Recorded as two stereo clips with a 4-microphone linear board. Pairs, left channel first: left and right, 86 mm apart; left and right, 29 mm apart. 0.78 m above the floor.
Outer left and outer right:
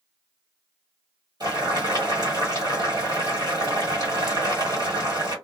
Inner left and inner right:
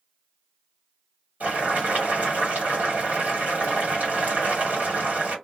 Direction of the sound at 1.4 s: 50° right (ahead or behind).